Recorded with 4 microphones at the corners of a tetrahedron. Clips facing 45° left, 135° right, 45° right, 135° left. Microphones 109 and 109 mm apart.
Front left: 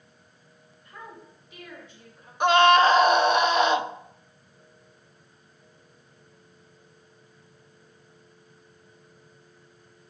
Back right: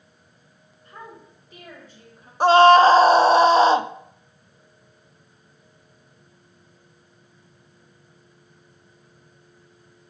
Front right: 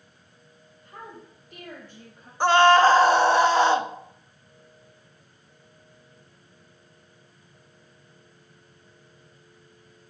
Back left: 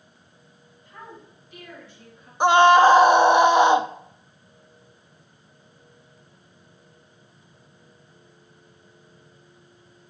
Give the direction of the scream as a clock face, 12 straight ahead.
6 o'clock.